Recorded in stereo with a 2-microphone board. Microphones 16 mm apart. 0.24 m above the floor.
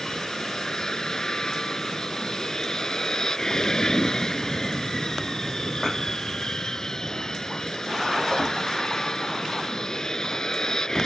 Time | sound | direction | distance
0.0 | an aircraft | 35° left (ahead or behind) | ?